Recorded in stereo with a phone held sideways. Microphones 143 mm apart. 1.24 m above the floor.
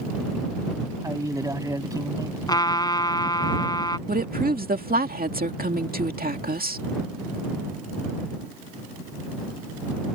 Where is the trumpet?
25° left (ahead or behind).